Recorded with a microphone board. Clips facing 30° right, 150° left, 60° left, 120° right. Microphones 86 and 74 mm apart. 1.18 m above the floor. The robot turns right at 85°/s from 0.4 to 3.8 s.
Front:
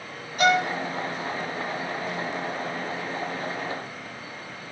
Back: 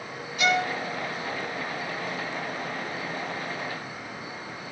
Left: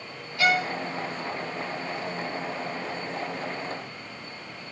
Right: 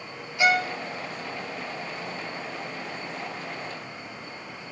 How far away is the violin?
About 0.6 m.